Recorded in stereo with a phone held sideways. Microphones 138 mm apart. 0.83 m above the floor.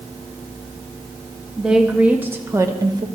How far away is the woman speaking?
About 1.2 m.